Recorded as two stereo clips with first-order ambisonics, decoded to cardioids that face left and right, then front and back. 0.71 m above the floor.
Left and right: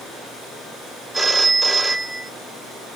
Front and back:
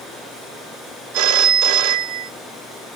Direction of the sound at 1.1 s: 175° right.